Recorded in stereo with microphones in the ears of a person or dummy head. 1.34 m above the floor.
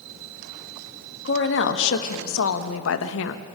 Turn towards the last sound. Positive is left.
turn(degrees=65)  # may be behind; listen again after turning